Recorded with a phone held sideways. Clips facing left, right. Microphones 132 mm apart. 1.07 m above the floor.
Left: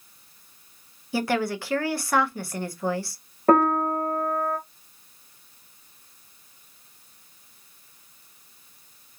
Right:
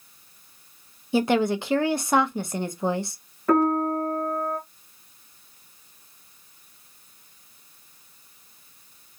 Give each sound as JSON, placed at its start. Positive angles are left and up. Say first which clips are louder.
{"t": 1.1, "sound": "a woman speaking", "louder": "right 4 dB", "side_deg": -20, "distance_m": 0.6}
{"t": 3.5, "sound": "a piano", "louder": "left 1 dB", "side_deg": 50, "distance_m": 1.0}